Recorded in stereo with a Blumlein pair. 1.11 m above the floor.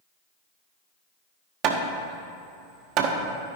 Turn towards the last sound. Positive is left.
turn(degrees=-35)